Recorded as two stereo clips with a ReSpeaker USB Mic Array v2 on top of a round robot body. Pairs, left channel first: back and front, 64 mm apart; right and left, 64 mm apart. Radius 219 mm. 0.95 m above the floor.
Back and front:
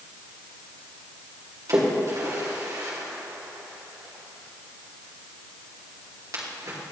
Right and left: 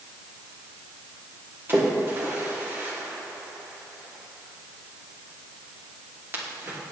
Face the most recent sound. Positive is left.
turn(degrees=35)